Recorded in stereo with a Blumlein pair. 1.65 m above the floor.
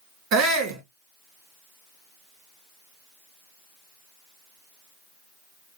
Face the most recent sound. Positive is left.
turn(degrees=-35)